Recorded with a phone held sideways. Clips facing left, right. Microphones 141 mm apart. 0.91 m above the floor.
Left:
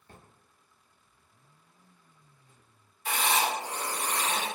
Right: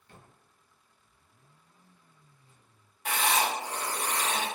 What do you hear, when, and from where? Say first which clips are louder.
0.1 s a drawer: left 1 dB; 40° left (ahead or behind), 0.6 m
3.0 s writing: even; 70° right (ahead or behind), 1.4 m